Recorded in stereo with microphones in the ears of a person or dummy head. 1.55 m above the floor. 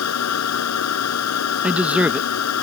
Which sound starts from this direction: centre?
A man speaking, at 1.6 s.